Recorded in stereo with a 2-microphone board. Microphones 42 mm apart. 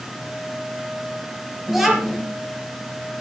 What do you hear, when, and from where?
1.7 s a child speaking: 10° right (ahead or behind), 4.5 m